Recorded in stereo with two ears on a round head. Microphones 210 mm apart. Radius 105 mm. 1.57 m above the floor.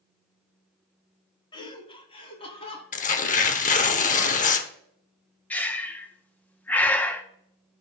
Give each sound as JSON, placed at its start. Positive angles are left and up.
{"t": 1.5, "sound": "laughter", "side_deg": 20, "distance_m": 1.4}
{"t": 2.9, "sound": "tearing paper", "side_deg": 30, "distance_m": 0.8}
{"t": 5.5, "sound": "breathing", "side_deg": 5, "distance_m": 0.7}